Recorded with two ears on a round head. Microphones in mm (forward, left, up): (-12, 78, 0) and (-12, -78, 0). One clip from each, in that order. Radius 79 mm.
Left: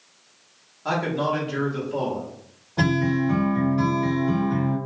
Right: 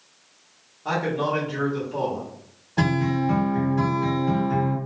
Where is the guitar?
45° right (ahead or behind), 1.5 m.